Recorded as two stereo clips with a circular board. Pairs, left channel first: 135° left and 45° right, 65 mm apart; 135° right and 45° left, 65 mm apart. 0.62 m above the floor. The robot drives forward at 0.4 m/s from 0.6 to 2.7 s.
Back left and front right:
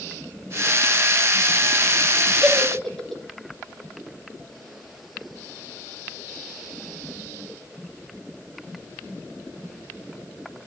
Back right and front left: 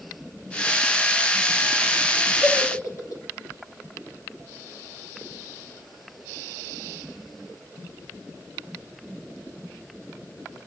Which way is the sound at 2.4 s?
140° right.